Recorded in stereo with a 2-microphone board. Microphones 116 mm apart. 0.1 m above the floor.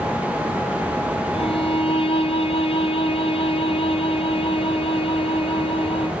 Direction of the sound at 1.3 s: 55° left (ahead or behind).